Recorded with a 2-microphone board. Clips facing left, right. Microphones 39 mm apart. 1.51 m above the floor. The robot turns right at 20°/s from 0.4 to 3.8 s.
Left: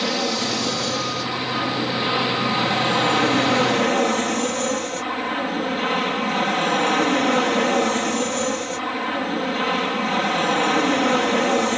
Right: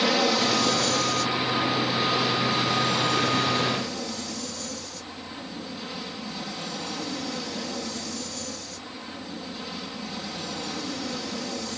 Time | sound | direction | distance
0.0 | an aircraft | 5° right | ?